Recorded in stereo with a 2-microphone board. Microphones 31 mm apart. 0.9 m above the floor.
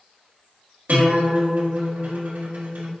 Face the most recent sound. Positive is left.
turn(degrees=-70)  # may be behind; listen again after turning